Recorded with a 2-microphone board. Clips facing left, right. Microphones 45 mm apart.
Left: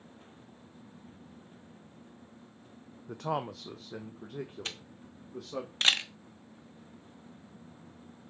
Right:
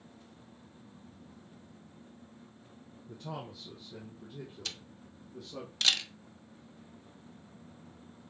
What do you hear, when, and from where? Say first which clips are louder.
3.1 s a man speaking: left 9 dB; 70° left (ahead or behind), 0.5 m; by 5.7 s 65° left (ahead or behind), 1.8 m
4.7 s a camera shutter: left 2 dB; 35° left (ahead or behind), 0.9 m